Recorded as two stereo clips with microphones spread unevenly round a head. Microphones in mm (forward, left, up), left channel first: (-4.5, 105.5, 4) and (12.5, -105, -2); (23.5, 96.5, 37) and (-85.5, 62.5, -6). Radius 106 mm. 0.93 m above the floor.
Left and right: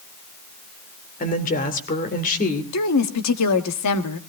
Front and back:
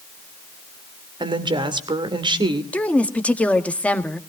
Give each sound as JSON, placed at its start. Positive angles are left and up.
{"t": 1.2, "sound": "a woman speaking", "azimuth_deg": 150, "distance_m": 2.5}
{"t": 2.7, "sound": "a woman speaking", "azimuth_deg": 100, "distance_m": 1.5}